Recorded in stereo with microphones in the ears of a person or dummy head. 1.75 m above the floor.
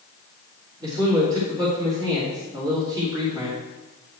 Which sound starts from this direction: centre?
A man speaking, at 0.8 s.